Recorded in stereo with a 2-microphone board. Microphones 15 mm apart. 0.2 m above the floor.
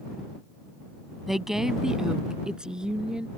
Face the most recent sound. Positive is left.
turn(degrees=-60)  # may be behind; listen again after turning